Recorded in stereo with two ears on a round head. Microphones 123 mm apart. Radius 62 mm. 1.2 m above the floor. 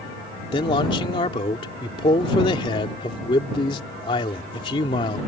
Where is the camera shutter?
No camera shutter in this recording.